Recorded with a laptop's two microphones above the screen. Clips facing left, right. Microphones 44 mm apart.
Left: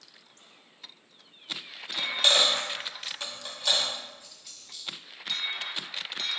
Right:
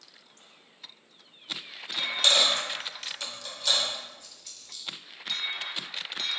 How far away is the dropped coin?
About 0.9 m.